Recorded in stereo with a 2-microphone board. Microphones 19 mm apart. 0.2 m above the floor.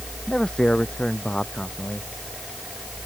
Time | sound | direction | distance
0.3 | a man speaking | 45° left (ahead or behind) | ?